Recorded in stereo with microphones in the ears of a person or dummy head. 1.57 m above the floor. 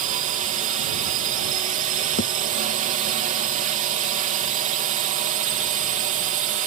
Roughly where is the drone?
Right.